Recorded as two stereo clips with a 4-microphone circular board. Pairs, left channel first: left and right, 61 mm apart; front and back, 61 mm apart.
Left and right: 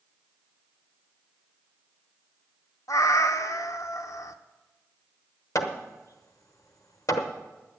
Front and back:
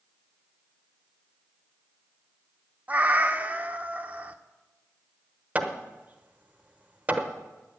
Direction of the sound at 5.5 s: 115° left.